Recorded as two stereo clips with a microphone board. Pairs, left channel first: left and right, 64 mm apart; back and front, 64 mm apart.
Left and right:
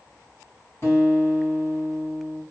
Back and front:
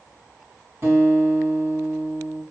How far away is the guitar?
About 2.5 m.